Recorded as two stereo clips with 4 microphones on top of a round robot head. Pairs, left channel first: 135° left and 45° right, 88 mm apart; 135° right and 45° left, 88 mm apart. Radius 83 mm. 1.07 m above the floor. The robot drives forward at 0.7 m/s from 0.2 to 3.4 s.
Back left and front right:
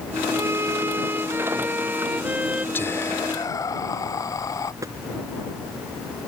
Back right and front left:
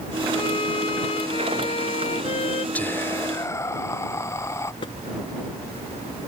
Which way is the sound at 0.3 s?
105° right.